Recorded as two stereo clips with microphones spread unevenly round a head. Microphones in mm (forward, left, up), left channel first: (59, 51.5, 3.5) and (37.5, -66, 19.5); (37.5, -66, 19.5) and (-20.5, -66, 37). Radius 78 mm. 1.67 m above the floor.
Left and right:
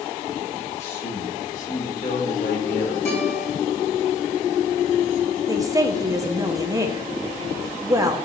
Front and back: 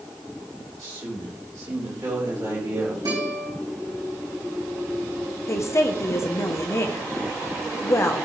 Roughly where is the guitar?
Behind left.